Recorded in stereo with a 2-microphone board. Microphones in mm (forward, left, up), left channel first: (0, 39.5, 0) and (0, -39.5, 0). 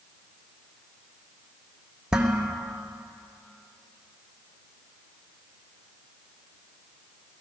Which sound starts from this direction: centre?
Dishes clattering, at 2.1 s.